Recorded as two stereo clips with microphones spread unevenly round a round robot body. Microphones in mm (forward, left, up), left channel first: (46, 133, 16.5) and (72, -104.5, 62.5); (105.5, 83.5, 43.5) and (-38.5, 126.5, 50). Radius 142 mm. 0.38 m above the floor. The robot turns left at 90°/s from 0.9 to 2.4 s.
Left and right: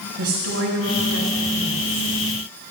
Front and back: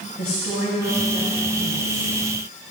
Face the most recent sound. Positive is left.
turn(degrees=165)